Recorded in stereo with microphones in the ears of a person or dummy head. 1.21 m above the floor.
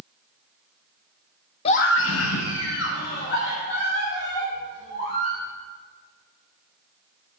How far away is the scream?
About 0.9 m.